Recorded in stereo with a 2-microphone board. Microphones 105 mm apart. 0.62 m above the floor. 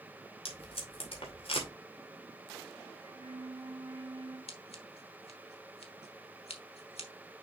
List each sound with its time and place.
0.5 s tape being pulled: 65° left (ahead or behind), 2.5 m
3.0 s a flute: 45° right (ahead or behind), 2.5 m
4.5 s scissors: 70° left (ahead or behind), 1.4 m